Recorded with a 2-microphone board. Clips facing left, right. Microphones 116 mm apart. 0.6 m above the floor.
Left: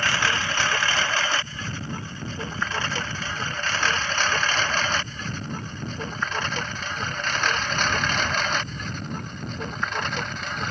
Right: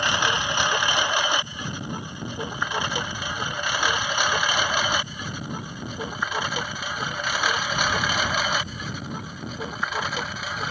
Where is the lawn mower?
20° right (ahead or behind); by 10.7 s 5° right (ahead or behind).